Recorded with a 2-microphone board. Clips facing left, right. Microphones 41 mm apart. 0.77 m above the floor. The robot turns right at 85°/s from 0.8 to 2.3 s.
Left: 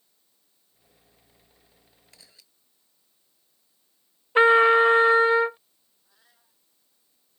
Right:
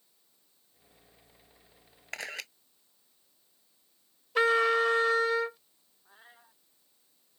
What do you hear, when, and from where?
2.1 s a camera shutter: 75° right (ahead or behind); by 2.5 s 90° right
4.3 s a trumpet: 35° left (ahead or behind)
6.0 s a cat meowing: 35° right (ahead or behind)